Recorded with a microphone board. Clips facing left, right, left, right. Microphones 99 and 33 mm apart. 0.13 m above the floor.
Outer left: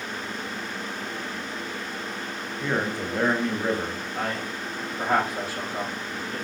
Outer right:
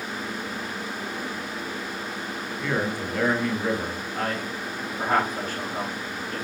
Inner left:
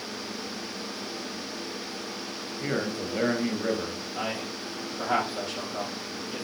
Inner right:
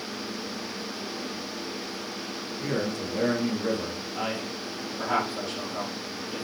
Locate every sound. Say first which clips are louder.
2.6 s a man speaking: even, even; 20° left (ahead or behind), 1.8 m
4.2 s a man speaking: outer right 1 dB, inner right 1 dB; 5° left (ahead or behind), 3.5 m